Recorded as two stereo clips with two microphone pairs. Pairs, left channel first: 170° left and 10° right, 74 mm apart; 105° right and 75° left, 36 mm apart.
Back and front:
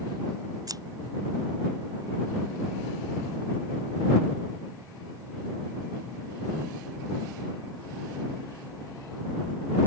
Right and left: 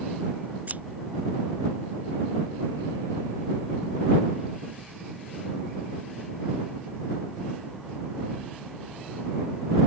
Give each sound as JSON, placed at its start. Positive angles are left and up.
{"t": 0.7, "sound": "scissors", "azimuth_deg": 30}